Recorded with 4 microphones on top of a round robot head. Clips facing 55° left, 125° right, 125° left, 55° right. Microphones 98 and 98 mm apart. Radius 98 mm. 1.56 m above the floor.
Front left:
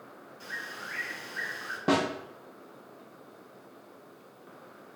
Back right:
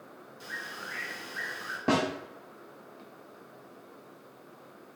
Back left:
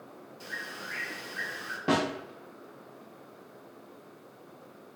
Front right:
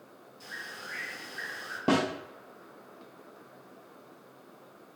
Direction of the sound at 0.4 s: 160° left.